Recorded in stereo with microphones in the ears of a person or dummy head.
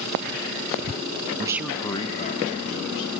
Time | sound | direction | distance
1.4 | a man speaking | 25° right (ahead or behind) | 0.6 m